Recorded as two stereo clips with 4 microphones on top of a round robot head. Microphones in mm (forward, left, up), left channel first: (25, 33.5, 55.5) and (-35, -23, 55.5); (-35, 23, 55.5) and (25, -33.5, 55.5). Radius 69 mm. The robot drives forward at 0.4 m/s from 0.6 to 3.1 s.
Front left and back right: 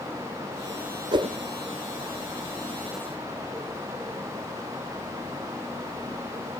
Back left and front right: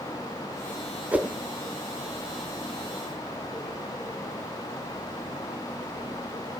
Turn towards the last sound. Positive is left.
turn(degrees=-140)